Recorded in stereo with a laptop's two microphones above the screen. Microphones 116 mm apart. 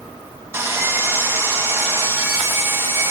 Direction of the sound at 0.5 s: 20° right (ahead or behind).